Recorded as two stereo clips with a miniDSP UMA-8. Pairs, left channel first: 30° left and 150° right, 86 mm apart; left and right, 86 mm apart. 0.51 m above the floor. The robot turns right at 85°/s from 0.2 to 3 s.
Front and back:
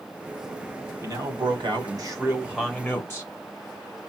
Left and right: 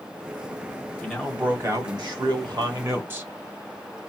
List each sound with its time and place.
1.0 s a man speaking: 165° left, 1.8 m; by 3.3 s 30° right, 1.8 m